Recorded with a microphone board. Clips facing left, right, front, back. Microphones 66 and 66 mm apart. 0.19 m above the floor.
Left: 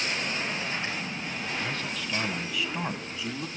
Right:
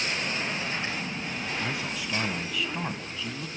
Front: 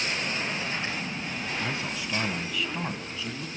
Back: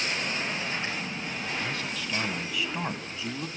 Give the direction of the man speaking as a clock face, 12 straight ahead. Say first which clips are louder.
Right 1 dB, front 1 dB; 1 o'clock.